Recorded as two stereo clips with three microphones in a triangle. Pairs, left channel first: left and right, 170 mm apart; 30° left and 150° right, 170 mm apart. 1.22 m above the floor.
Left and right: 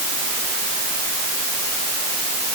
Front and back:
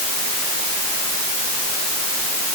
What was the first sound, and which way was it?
Only background noise.